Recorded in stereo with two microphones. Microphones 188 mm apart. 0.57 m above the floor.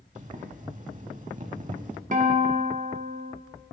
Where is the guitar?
40° right (ahead or behind), 0.9 m.